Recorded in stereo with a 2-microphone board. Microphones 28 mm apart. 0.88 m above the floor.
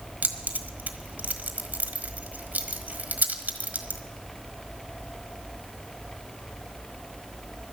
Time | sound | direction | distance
0.2 | keys jangling | 80° right | 1.4 m